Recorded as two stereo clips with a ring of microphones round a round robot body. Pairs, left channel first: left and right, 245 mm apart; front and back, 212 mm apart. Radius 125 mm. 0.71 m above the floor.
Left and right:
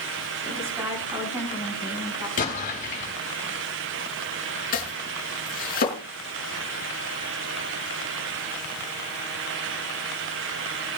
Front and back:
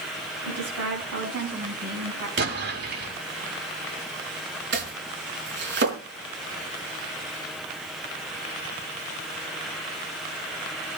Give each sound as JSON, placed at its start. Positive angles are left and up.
{"t": 0.4, "sound": "a woman speaking", "azimuth_deg": -170, "distance_m": 5.0}
{"t": 2.4, "sound": "an explosion", "azimuth_deg": 150, "distance_m": 5.0}
{"t": 4.7, "sound": "chopping", "azimuth_deg": 145, "distance_m": 4.5}